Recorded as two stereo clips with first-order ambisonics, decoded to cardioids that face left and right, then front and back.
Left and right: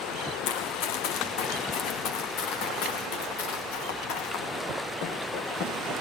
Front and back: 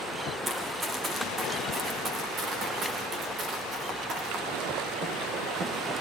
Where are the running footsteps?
105° left, 6 m; by 6.0 s 130° left, 11.5 m.